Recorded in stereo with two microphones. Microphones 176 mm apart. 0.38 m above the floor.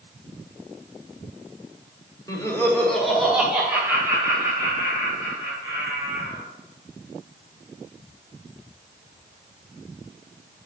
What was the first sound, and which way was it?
Laughter, 20° left (ahead or behind).